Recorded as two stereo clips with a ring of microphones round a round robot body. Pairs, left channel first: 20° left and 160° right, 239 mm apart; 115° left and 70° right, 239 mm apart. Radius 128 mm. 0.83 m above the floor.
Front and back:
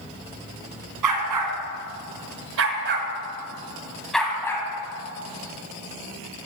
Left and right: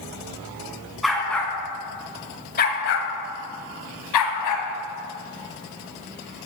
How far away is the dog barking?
About 3 m.